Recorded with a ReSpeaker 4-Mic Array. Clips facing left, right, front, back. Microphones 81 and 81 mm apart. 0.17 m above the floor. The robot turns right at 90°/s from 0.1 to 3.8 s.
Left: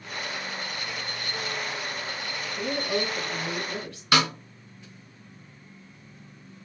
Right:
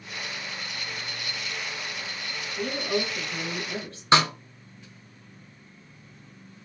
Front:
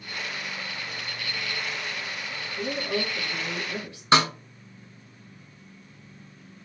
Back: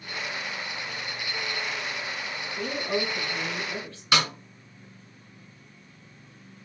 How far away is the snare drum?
About 0.9 m.